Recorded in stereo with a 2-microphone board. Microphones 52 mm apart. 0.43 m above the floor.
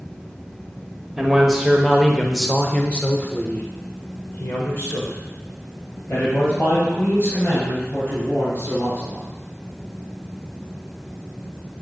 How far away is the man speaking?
About 1.3 m.